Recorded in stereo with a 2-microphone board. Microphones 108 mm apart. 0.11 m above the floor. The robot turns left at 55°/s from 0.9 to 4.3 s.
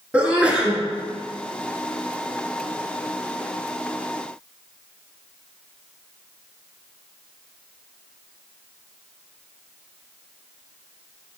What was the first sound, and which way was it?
A sneeze, 10° right (ahead or behind).